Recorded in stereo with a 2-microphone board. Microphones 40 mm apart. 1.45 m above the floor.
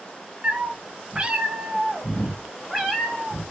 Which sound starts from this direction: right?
A cat meowing, at 0.4 s.